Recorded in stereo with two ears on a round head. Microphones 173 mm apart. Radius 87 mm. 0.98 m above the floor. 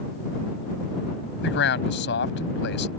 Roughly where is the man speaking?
Left.